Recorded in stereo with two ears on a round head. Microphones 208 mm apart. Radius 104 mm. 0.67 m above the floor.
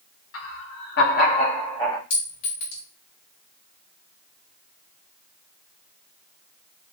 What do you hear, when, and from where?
0.3 s laughter: 60° left (ahead or behind), 1.5 m; by 2.0 s 15° left (ahead or behind), 1.4 m
2.1 s a clink: 60° left (ahead or behind), 3 m